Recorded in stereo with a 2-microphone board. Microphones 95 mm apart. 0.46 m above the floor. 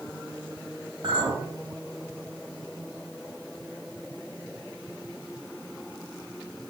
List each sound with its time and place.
1.0 s a clink: 55° right (ahead or behind), 2.5 m